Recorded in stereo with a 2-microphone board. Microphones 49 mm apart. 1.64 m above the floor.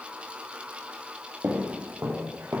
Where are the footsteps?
40° right (ahead or behind), 3 m; by 2.6 s 50° right (ahead or behind), 2.5 m.